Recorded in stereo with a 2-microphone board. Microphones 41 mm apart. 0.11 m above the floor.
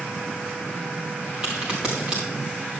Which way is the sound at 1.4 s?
20° right (ahead or behind).